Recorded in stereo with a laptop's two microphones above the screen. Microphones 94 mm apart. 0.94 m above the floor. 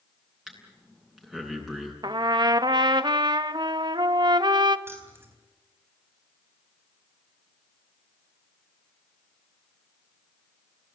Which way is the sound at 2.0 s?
50° right (ahead or behind).